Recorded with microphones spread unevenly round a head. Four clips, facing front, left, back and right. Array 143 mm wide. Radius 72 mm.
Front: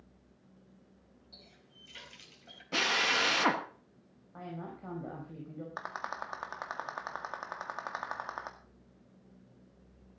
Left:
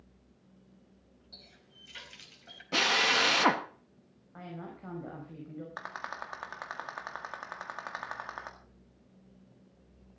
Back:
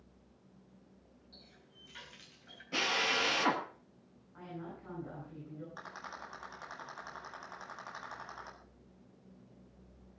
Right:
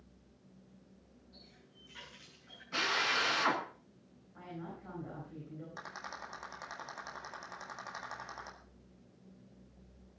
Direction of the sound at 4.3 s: 30° left.